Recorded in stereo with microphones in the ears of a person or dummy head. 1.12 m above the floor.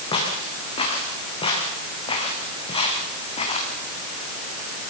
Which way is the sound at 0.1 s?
30° left (ahead or behind).